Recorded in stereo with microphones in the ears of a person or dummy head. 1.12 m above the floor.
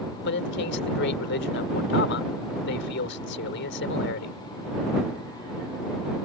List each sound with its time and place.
0.2 s a man speaking: 65° left (ahead or behind)